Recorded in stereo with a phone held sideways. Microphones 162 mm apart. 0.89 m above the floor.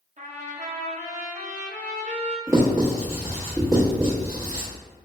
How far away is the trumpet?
About 0.7 m.